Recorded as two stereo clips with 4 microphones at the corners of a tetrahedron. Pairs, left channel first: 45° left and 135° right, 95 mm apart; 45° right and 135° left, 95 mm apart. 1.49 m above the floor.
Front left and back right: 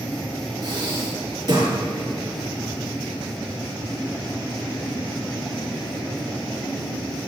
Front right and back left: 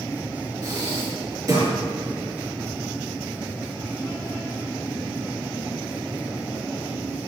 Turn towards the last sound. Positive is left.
turn(degrees=-175)